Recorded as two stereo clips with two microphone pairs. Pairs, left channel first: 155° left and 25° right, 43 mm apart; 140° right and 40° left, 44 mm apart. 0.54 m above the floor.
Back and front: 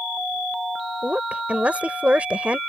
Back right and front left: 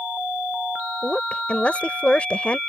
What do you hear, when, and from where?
1.0 s a woman speaking: 80° right